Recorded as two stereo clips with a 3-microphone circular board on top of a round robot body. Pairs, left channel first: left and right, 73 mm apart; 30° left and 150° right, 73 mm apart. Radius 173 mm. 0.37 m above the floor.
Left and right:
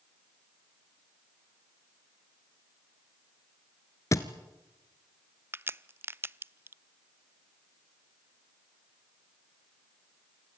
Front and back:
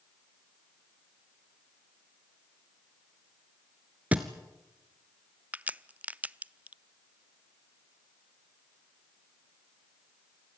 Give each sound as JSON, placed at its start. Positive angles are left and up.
{"t": 4.1, "sound": "a thud", "azimuth_deg": 140, "distance_m": 1.2}
{"t": 5.5, "sound": "a crack", "azimuth_deg": -100, "distance_m": 0.7}